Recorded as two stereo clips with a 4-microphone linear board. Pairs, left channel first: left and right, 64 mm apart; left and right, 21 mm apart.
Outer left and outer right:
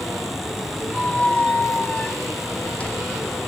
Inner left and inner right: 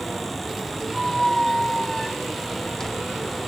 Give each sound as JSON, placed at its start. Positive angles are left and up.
{"t": 0.9, "sound": "a squeak", "side_deg": 20, "distance_m": 0.5}